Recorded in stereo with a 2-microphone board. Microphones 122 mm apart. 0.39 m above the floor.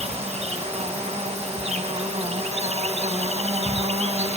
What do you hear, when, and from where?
0.0 s an insect: 70° right (ahead or behind), 1.6 m